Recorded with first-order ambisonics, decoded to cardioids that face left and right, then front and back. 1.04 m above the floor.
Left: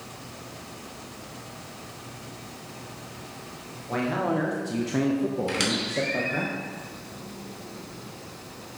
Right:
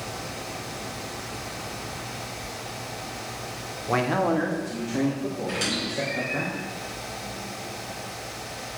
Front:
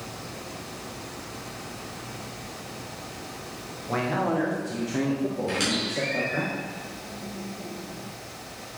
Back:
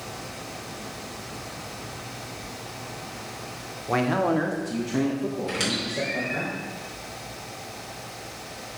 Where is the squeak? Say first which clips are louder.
Right 1 dB, front 1 dB; 95° left, 2.5 m.